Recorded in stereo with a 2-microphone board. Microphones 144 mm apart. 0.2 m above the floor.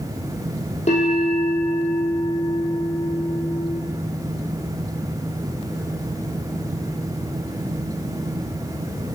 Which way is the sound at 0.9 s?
50° left (ahead or behind).